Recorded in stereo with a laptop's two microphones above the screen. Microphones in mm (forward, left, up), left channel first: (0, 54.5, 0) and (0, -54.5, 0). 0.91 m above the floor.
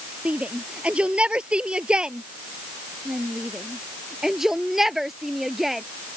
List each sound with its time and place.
0.2 s a shout: 10° right (ahead or behind); by 5.8 s centre (ahead or behind)